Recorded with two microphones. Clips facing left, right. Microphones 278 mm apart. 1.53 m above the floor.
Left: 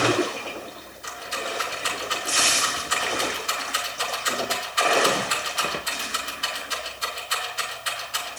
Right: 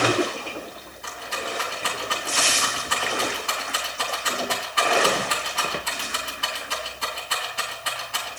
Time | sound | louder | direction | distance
1.0 | a rattle | even | 65° right (ahead or behind) | 3 m